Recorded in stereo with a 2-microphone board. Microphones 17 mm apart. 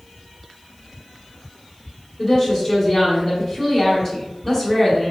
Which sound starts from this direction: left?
A woman speaking, at 2.2 s.